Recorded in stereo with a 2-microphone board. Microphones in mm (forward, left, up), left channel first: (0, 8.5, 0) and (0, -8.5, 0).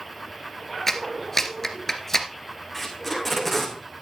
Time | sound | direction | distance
0.9 | a clap | 25° left (ahead or behind) | 1.8 m
2.7 | tape being pulled | 10° left (ahead or behind) | 3.5 m